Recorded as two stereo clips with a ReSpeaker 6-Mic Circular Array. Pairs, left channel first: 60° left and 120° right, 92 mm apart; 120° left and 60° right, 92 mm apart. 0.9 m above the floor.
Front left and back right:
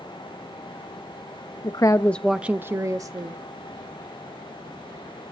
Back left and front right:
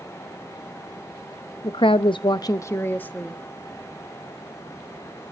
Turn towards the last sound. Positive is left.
turn(degrees=-165)